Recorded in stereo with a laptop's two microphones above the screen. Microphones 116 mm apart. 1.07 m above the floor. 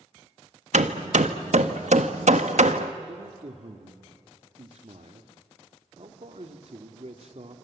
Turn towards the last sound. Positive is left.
turn(degrees=-60)  # may be behind; listen again after turning